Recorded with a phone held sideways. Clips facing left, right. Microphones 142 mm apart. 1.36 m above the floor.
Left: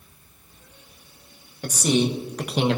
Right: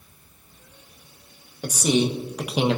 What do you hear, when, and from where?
1.6 s a man speaking: 10° right (ahead or behind), 1.6 m; by 2.8 s 5° right (ahead or behind), 0.9 m